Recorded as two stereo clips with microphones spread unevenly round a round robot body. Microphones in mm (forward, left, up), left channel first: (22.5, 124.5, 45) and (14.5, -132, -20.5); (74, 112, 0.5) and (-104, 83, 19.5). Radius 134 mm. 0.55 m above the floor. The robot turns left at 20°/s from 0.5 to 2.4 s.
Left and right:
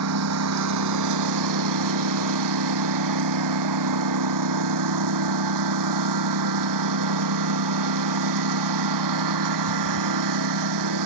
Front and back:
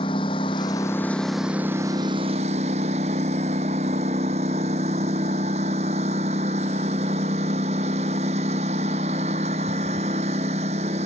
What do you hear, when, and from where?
0.0 s a lawn mower: 65° right; by 11.1 s 100° right